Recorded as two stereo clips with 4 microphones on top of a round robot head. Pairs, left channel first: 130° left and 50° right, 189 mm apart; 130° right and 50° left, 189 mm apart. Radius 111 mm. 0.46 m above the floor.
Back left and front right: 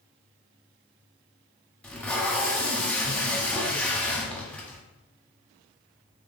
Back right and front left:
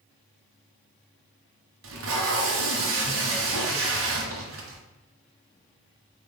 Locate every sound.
1.8 s tape being pulled: 45° left, 1.6 m